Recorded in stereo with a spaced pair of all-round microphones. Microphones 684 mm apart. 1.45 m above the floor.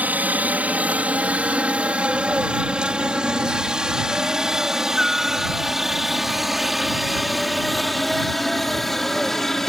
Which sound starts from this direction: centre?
A helicopter, at 0.0 s.